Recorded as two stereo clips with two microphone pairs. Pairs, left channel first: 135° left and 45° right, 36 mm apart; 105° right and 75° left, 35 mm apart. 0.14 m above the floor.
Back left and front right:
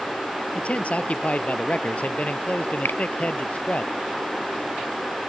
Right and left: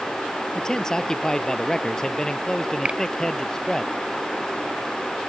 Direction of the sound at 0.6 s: 175° right.